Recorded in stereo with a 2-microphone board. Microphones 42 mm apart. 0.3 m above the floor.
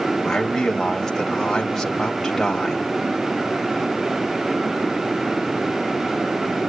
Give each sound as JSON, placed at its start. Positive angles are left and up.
{"t": 0.2, "sound": "a man speaking", "side_deg": 10, "distance_m": 1.6}